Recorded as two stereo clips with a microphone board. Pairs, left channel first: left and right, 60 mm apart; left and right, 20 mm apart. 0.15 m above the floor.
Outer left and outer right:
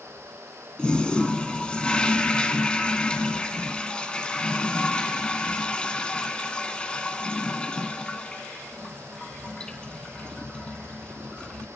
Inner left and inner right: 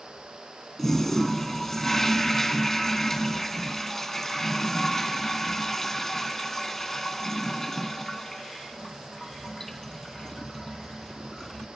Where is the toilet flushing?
20° left (ahead or behind), 1.7 m.